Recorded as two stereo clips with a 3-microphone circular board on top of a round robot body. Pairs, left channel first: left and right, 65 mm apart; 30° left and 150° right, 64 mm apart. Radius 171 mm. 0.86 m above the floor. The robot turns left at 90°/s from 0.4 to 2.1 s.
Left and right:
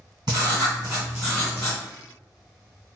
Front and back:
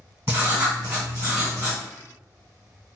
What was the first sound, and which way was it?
Writing, 95° right.